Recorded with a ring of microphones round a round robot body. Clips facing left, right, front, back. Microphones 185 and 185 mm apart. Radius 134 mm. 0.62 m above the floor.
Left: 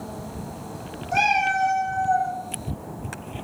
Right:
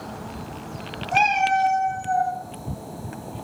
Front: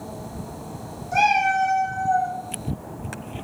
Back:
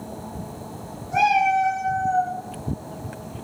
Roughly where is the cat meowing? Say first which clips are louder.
Right 2 dB, back 1 dB; ahead right.